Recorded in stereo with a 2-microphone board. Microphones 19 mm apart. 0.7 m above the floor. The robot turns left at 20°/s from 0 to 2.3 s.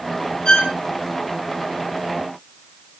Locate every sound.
0.5 s a violin: 45° left (ahead or behind), 6 m; by 0.7 s 40° left (ahead or behind), 6 m